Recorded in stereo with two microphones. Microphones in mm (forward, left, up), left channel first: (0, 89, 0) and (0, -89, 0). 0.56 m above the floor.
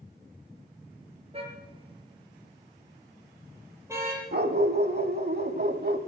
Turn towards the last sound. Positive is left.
turn(degrees=-65)  # may be behind; listen again after turning